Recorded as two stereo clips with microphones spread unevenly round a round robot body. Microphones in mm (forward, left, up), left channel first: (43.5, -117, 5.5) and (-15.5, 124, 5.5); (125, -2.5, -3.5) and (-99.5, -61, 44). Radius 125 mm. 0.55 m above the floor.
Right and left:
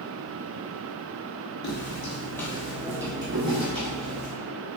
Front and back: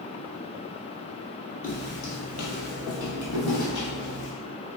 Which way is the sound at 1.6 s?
40° right.